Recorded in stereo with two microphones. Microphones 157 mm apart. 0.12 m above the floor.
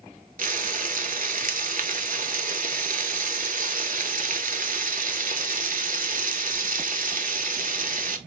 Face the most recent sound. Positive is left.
turn(degrees=-60)  # may be behind; listen again after turning